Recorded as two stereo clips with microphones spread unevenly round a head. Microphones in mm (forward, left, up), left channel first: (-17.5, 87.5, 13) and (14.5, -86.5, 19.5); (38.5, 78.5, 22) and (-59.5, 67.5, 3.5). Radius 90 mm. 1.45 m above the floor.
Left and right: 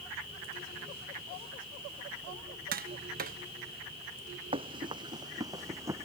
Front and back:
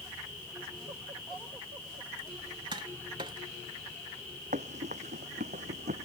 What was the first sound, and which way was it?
Tapping, 120° right.